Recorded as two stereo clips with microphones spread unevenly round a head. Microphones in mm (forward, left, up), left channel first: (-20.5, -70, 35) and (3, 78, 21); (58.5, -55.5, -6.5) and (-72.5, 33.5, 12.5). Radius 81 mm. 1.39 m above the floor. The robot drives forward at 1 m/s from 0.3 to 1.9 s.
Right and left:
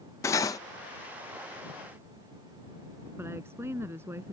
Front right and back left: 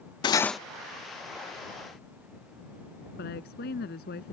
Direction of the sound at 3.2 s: 5° left.